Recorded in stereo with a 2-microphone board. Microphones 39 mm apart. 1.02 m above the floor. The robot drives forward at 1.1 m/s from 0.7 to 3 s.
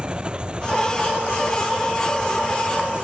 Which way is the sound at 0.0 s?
25° right (ahead or behind).